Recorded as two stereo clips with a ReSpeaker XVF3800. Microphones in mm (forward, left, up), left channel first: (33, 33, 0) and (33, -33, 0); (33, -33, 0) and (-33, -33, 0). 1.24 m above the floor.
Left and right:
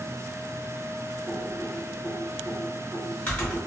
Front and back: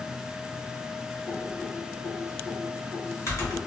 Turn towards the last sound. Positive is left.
turn(degrees=30)